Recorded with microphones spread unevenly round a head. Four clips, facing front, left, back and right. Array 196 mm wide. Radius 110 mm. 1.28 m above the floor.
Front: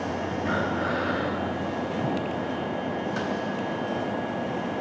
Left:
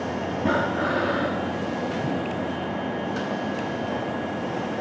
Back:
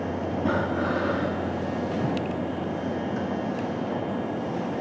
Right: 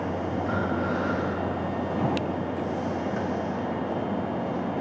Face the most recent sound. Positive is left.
turn(degrees=115)